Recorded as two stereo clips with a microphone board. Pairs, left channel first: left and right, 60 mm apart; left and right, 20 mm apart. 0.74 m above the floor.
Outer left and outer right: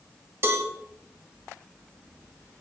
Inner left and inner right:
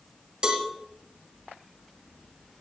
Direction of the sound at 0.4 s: 45° right (ahead or behind).